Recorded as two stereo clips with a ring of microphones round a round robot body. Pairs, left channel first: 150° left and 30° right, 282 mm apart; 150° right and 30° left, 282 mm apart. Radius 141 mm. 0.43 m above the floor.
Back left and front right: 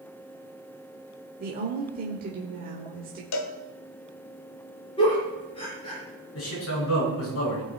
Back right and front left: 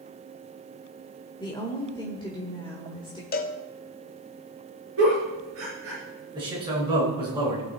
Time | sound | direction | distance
1.4 | a woman speaking | 80° right | 1.2 m
3.3 | a cowbell | 155° left | 0.9 m
5.0 | a giggle | 75° left | 5.5 m
6.3 | a man speaking | 105° left | 5 m